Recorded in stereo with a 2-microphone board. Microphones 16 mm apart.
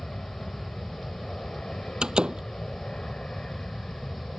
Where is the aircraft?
60° left (ahead or behind).